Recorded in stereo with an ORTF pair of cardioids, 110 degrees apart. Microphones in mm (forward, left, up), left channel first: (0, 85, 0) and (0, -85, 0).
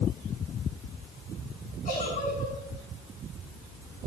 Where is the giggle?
55° left, 6 m.